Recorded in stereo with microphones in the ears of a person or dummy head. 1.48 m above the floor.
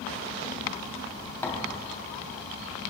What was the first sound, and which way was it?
A thud, 15° left (ahead or behind).